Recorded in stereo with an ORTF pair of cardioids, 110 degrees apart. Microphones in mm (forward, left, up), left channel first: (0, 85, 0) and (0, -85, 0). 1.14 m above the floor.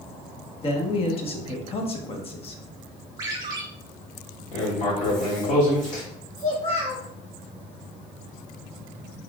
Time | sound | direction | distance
0.6 | a man speaking | 35° left | 1.2 m
3.2 | a ringtone | 20° right | 1.9 m
4.5 | writing | 50° left | 2.0 m
6.4 | a child speaking | 25° left | 2.5 m